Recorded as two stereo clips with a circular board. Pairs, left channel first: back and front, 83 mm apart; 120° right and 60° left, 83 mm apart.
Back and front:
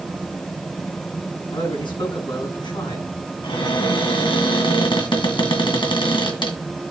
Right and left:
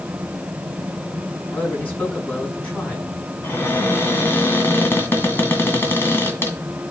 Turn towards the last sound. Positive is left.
turn(degrees=175)